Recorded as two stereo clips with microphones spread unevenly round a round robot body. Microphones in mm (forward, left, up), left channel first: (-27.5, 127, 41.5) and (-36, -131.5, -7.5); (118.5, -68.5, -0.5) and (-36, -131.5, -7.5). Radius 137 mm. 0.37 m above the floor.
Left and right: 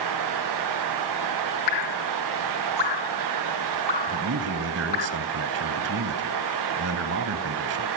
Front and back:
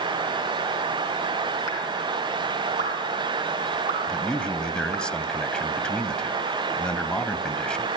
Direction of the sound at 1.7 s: 70° left.